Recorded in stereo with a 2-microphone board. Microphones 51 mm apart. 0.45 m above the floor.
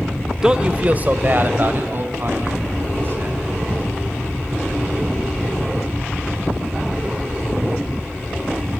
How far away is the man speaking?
About 0.8 m.